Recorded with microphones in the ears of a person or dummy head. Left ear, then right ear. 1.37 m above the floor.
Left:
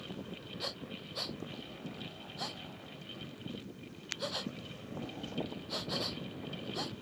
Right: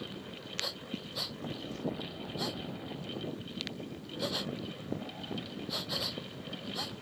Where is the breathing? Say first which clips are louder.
Right 3 dB; 15° left (ahead or behind).